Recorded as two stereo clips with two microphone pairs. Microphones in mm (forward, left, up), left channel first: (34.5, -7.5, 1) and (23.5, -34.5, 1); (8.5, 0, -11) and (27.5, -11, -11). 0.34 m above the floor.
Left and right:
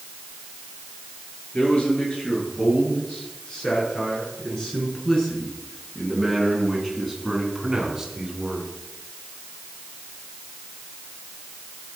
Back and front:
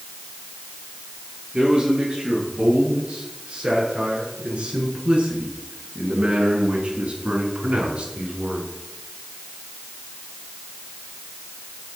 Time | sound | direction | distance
1.5 | a man speaking | 10° left | 7 m